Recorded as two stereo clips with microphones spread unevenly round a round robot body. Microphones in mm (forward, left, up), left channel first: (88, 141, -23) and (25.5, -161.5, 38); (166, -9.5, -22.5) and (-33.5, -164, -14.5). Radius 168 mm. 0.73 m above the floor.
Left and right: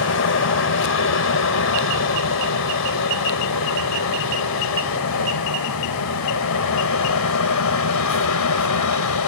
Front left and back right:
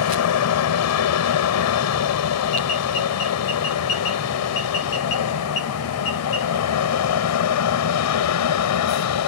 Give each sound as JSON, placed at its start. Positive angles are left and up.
{"t": 0.0, "sound": "an aircraft", "azimuth_deg": 40}